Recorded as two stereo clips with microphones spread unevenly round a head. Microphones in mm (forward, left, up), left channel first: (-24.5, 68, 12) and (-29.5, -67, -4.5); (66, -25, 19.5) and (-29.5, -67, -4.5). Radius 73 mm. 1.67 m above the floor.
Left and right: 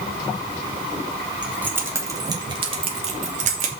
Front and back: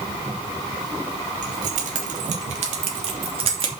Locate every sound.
1.4 s keys jangling: 175° right, 3 m; by 3.7 s 120° right, 2.5 m